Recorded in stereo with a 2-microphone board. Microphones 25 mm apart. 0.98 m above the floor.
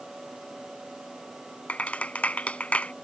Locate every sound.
1.7 s a clap: 60° left (ahead or behind)